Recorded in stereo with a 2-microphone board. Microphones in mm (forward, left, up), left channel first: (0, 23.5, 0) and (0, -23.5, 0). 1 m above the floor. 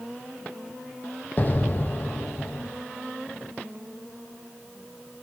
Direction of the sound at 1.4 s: 40° left (ahead or behind).